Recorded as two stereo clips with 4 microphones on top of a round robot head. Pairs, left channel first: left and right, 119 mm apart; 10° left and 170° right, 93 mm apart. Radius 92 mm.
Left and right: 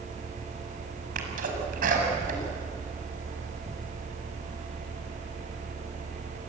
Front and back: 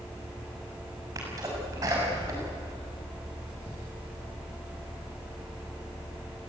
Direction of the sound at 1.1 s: 105° right.